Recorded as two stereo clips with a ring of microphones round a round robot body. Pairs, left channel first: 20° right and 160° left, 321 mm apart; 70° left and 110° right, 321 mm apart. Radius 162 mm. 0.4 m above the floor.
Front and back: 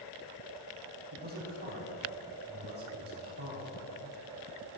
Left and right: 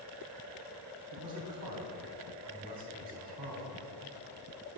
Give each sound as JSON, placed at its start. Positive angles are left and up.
{"t": 1.1, "sound": "a man speaking", "azimuth_deg": -145, "distance_m": 3.0}